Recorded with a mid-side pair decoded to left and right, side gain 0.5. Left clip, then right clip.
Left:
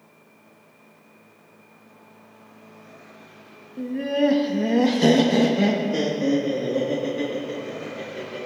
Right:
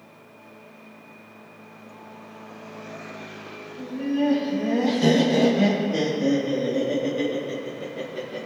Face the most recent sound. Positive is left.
turn(degrees=-10)